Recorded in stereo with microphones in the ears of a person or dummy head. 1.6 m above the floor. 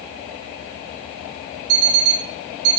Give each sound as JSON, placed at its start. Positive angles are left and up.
{"t": 1.7, "sound": "an alarm clock", "side_deg": -80, "distance_m": 6.0}